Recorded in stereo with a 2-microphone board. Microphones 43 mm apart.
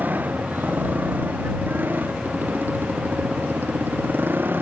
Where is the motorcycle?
50° right (ahead or behind); by 4.6 s 55° right (ahead or behind).